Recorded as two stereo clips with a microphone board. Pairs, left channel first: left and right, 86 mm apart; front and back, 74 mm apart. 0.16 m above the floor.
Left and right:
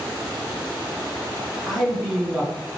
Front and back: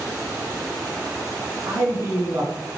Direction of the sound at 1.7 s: 175° left.